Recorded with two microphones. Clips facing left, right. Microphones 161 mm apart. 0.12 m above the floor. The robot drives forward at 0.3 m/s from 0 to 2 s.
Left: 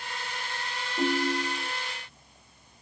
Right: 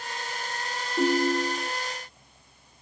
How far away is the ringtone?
About 1.5 m.